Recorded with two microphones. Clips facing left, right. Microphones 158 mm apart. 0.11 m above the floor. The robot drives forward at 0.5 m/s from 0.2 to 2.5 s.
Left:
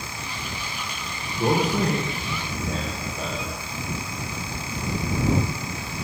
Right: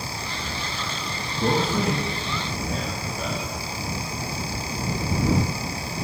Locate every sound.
1.4 s a man speaking: 45° left (ahead or behind), 2.5 m; by 3.6 s 40° left (ahead or behind), 3 m